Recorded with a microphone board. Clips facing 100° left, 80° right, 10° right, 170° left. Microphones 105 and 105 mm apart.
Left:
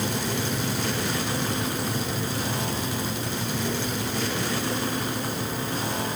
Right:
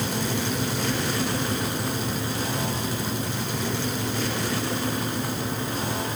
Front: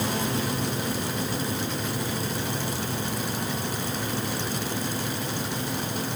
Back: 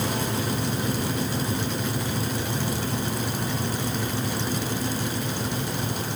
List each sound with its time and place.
Only background noise.